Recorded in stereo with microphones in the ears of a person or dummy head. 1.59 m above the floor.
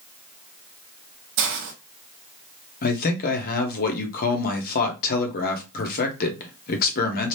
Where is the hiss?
65° right (ahead or behind), 0.9 m.